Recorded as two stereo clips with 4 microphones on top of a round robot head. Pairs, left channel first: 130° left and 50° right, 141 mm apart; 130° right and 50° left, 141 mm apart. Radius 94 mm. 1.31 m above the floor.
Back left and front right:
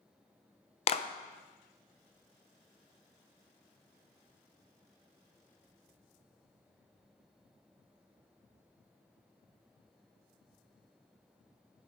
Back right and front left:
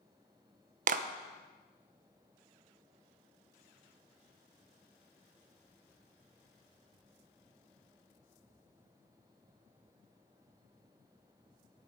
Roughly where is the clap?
Left.